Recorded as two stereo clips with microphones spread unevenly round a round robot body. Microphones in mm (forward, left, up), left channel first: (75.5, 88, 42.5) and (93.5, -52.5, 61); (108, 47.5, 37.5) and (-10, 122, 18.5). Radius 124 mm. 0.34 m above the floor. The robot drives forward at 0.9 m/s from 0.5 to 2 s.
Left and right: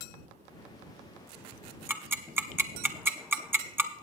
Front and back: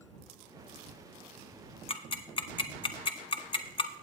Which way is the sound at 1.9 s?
5° right.